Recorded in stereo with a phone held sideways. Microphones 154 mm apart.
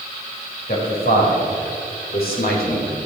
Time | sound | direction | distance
0.7 | a man speaking | 80° left | 4 m